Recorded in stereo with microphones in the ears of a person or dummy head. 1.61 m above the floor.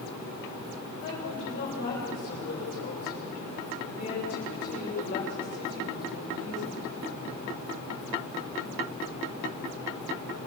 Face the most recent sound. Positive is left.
turn(degrees=40)  # may be behind; listen again after turning